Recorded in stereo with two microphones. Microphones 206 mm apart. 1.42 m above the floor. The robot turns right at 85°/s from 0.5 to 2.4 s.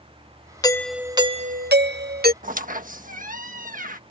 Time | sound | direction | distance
0.6 | a doorbell | 155° left | ?
2.4 | a squeak | 45° right (ahead or behind) | ?